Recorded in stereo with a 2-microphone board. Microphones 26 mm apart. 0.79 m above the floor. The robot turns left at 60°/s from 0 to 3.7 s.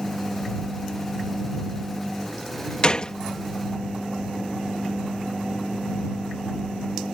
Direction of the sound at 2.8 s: 35° left (ahead or behind).